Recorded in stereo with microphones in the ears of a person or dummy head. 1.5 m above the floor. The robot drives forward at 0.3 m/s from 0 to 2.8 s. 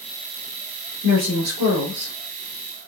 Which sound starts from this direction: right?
A woman speaking, at 1.0 s.